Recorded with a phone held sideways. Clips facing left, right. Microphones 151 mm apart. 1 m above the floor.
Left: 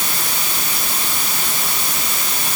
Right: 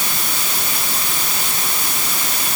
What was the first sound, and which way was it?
Only background noise.